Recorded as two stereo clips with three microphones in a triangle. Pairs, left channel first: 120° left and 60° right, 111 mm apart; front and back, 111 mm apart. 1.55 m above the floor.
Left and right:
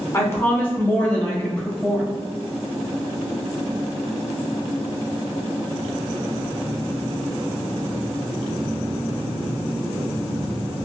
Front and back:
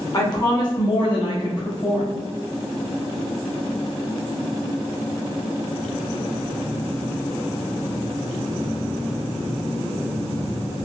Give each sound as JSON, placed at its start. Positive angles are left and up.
{"t": 0.1, "sound": "a woman speaking", "azimuth_deg": 55, "distance_m": 1.0}